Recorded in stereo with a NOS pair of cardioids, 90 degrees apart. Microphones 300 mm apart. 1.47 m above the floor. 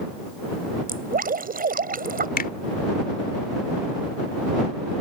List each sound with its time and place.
0.9 s dripping: 30° right
2.4 s a finger snap: 30° left